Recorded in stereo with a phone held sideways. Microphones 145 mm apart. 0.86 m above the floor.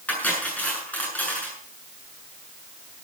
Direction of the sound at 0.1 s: 10° left (ahead or behind).